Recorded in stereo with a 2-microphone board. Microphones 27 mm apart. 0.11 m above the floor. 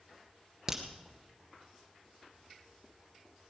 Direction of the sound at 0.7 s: 20° right (ahead or behind).